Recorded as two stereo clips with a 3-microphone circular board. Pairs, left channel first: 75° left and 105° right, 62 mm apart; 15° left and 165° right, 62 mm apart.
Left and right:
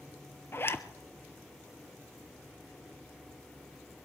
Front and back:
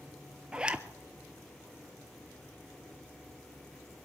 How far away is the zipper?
About 0.6 m.